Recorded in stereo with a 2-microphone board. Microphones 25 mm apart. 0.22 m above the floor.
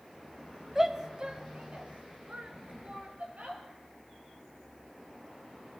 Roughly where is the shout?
Centre.